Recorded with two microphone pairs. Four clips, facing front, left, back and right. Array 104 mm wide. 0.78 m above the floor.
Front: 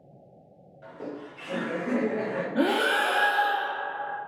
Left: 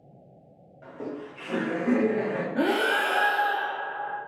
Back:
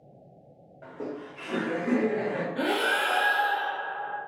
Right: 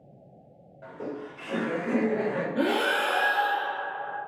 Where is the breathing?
30° left, 0.7 m.